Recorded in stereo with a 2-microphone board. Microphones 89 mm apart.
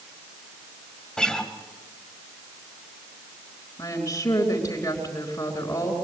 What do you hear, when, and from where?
1.2 s a guitar: 10° left (ahead or behind), 1.8 m
3.8 s a woman speaking: 35° left (ahead or behind), 4.5 m